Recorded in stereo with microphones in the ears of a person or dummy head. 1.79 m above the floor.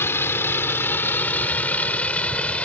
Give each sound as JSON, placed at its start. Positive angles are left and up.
{"t": 0.0, "sound": "a vehicle", "side_deg": 15}